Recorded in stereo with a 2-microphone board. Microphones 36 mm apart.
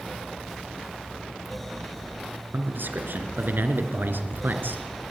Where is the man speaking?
70° right (ahead or behind), 3.5 m.